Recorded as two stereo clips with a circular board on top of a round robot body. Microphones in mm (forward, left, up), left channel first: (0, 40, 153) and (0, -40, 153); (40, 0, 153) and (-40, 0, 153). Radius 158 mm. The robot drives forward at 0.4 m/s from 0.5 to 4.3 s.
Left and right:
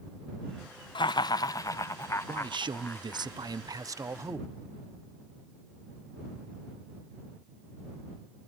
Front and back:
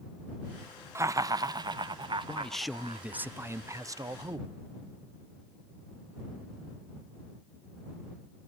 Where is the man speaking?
75° right, 0.7 m; by 4.5 s 140° right, 0.9 m.